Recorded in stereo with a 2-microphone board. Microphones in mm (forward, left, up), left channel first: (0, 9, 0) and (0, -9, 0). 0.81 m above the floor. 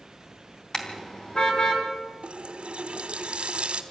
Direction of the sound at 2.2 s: 85° right.